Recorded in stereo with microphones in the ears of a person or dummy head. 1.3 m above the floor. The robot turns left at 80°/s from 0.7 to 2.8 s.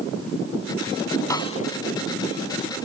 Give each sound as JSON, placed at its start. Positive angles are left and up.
{"t": 1.3, "sound": "a snare drum", "side_deg": 20}